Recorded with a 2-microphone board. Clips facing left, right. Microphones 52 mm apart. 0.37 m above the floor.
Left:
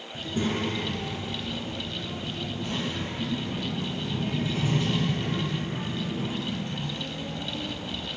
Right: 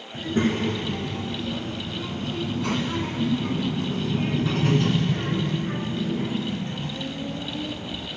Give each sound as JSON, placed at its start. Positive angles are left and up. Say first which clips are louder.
{"t": 0.1, "sound": "a child speaking", "louder": "right 5 dB", "side_deg": -40, "distance_m": 3.0}